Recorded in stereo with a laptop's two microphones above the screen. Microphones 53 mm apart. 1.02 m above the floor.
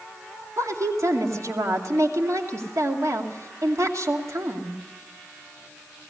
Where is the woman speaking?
70° right (ahead or behind), 2.5 m.